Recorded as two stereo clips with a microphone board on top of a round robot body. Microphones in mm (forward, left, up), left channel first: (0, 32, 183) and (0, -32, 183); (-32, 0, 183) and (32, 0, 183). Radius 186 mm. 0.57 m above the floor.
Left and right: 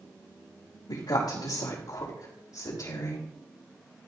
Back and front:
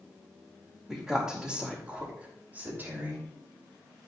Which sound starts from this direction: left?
A woman speaking, at 0.9 s.